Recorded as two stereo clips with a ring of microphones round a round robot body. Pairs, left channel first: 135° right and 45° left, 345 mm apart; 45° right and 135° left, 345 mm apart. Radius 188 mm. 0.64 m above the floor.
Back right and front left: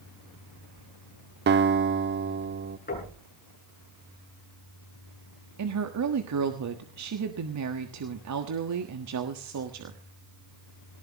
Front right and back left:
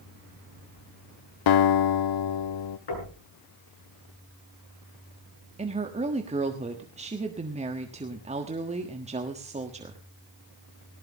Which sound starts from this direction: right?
Knocking, at 2.9 s.